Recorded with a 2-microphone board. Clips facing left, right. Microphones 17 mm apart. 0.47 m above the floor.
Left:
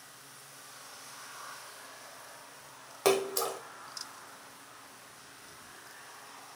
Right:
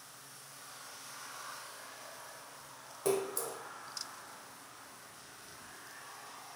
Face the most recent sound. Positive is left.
turn(degrees=80)